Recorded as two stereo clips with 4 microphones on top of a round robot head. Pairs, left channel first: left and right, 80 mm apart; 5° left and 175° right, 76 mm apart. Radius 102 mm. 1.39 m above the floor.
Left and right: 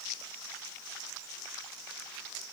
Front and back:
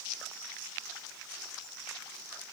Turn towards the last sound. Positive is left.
No sound to turn to.